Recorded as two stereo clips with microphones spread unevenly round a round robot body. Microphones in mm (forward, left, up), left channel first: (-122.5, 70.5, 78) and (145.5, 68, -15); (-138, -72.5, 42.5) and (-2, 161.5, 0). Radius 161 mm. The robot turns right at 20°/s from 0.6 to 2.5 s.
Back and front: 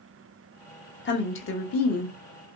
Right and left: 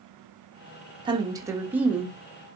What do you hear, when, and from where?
1.1 s a woman speaking: 120° left, 0.9 m; by 2.2 s 140° left, 0.9 m